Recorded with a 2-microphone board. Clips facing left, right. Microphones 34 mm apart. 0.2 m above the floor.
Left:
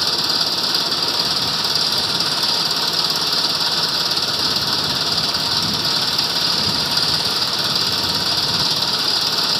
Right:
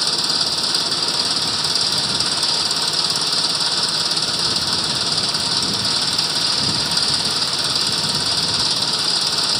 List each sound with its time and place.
0.0 s an engine running: 10° left (ahead or behind)